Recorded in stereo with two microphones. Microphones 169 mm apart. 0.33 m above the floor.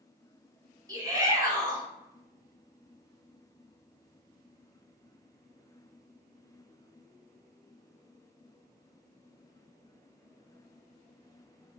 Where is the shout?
20° right (ahead or behind), 0.9 m.